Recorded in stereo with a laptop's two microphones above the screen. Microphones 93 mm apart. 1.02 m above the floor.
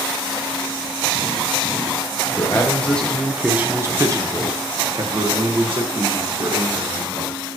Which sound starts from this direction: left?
A man speaking, at 2.3 s.